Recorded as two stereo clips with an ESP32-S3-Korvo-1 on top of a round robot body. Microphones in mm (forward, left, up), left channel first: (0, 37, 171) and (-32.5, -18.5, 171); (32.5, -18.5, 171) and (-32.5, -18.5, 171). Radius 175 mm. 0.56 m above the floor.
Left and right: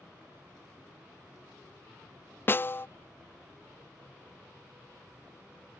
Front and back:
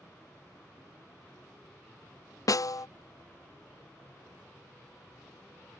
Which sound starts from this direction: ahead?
A snare drum, at 2.5 s.